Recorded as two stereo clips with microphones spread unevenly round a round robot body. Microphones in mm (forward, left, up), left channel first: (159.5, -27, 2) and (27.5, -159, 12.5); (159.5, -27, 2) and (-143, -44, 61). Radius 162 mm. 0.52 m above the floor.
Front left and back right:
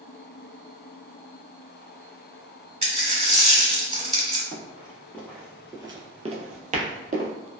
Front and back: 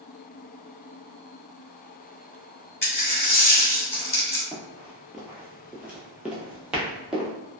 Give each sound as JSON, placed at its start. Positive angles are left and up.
{"t": 2.8, "sound": "a dropped coin", "azimuth_deg": -80, "distance_m": 1.3}
{"t": 4.5, "sound": "running footsteps", "azimuth_deg": 105, "distance_m": 0.7}